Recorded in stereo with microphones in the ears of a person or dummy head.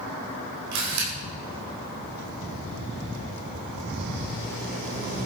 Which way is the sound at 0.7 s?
80° right.